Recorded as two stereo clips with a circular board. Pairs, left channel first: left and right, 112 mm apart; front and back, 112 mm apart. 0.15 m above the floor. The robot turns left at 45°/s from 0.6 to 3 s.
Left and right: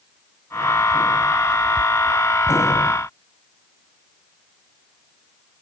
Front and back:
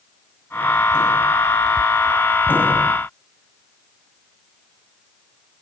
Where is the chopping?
I don't hear chopping.